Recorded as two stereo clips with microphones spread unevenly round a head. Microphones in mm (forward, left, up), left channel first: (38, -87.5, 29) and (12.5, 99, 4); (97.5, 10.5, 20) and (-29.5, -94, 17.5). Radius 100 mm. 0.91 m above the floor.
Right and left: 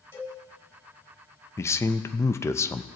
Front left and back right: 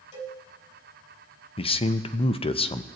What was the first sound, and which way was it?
A cowbell, 5° right.